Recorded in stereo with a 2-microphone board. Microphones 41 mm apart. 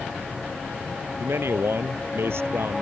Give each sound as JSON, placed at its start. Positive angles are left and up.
{"t": 1.2, "sound": "a man speaking", "side_deg": -75}